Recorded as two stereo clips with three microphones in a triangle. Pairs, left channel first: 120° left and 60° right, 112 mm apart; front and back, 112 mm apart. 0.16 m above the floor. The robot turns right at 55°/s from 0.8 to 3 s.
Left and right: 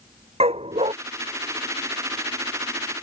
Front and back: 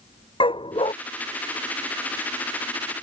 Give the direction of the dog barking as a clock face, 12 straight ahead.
1 o'clock.